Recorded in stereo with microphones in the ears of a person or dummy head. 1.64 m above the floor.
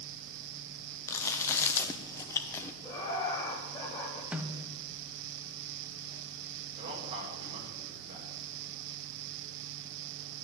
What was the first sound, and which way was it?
Chewing, 15° left (ahead or behind).